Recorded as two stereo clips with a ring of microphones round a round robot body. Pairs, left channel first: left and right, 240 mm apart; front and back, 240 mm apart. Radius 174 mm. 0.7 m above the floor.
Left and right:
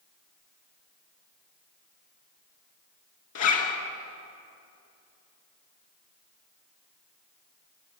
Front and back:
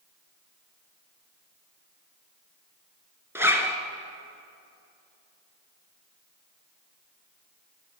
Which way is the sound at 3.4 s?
100° left.